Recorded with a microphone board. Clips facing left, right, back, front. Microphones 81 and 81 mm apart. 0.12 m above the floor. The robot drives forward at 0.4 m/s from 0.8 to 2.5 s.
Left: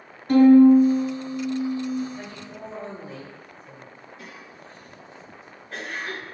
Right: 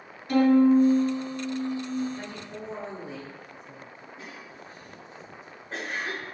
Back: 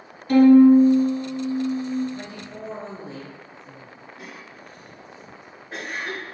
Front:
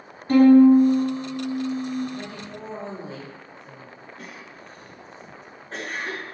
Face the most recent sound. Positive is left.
turn(degrees=-105)